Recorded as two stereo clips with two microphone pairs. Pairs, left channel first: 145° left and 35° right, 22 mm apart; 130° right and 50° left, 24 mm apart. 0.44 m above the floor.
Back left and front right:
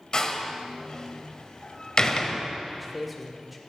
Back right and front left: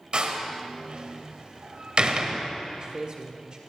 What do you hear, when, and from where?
0.1 s a door slam: 90° left, 1.2 m
2.7 s a man speaking: 45° left, 1.8 m